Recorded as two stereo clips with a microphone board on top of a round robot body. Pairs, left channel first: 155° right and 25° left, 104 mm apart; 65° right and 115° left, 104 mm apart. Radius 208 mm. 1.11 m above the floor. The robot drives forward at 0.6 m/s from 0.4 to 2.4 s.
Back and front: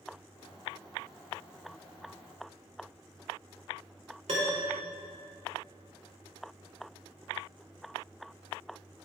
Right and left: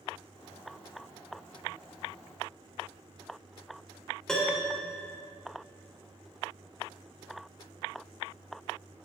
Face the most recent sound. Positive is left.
turn(degrees=15)